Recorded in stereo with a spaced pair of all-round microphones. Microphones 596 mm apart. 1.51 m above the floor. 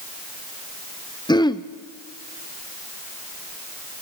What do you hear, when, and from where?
1.3 s throat clearing: 10° left (ahead or behind), 0.7 m